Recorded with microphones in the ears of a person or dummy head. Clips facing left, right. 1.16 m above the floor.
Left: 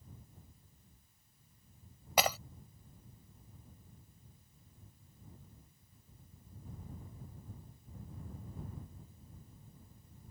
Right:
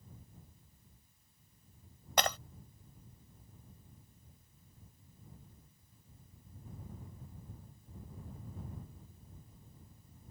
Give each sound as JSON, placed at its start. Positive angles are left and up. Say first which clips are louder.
{"t": 2.2, "sound": "breaking glass", "louder": "left 1 dB", "side_deg": 5}